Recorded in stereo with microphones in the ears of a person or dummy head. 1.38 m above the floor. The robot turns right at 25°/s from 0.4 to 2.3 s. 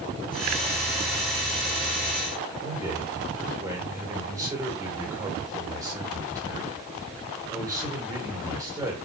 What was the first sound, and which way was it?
A man speaking, 15° right (ahead or behind).